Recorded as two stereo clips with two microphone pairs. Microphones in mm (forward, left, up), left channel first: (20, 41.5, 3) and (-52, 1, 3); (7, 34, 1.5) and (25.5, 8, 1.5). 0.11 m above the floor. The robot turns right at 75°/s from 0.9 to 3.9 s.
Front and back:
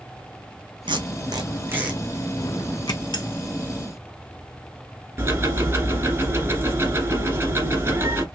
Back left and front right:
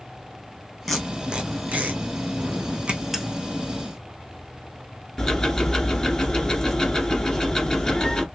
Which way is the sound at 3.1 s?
25° left.